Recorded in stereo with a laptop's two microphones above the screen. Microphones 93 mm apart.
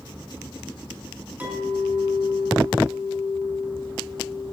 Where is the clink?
20° right (ahead or behind), 5.5 m.